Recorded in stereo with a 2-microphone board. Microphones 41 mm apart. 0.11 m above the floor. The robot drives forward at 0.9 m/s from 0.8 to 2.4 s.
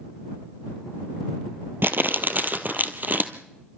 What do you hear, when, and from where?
1.8 s crumpling: 60° right (ahead or behind), 1.2 m; by 3.3 s 50° right (ahead or behind), 1.4 m